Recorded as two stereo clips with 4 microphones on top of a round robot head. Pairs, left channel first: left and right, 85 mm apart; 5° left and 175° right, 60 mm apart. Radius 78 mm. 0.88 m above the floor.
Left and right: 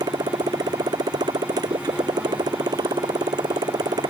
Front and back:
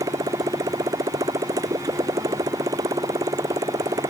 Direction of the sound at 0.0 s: 140° right.